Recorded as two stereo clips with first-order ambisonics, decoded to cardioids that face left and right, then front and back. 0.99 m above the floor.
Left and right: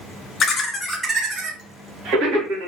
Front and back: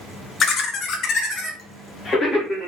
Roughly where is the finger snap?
I don't hear a finger snap.